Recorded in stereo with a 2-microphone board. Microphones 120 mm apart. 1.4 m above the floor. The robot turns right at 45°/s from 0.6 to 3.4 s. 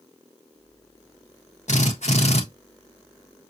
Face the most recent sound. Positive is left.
turn(degrees=155)